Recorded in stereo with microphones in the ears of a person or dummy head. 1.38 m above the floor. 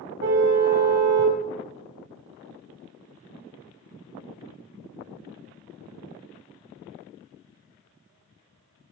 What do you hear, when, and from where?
0.2 s a car horn: 55° right (ahead or behind), 4.5 m